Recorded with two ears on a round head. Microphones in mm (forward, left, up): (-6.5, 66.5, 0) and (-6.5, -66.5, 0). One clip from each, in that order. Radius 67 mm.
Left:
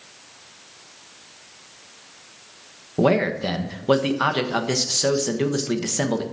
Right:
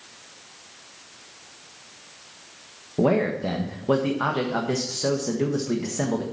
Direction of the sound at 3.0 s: 70° left (ahead or behind).